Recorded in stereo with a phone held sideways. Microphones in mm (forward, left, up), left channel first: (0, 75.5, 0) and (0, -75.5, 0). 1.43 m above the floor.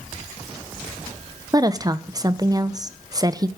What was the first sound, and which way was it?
A woman speaking, 25° right (ahead or behind).